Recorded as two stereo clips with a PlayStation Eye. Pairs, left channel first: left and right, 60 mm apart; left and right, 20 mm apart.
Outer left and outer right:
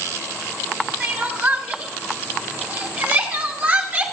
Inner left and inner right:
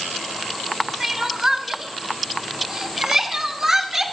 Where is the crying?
30° right (ahead or behind), 1.7 m.